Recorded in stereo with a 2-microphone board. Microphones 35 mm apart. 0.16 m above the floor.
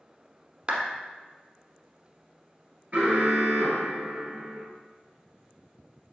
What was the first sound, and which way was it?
A clap, 30° right (ahead or behind).